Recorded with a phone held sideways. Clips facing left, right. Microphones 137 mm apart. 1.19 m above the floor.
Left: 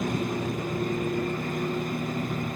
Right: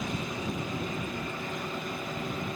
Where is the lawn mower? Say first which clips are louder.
Left 6 dB; 50° left (ahead or behind); by 2.6 s 45° left (ahead or behind).